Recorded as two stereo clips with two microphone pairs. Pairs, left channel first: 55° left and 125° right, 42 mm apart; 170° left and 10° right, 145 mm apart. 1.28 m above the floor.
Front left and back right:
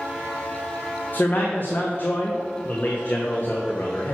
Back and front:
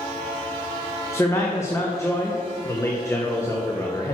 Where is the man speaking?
100° left, 0.8 m.